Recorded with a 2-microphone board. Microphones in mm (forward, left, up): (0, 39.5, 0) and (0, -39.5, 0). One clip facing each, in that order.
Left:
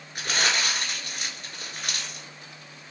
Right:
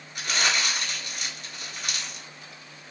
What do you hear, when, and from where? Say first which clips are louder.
0.1 s crumpling: even; 45° left (ahead or behind), 1.3 m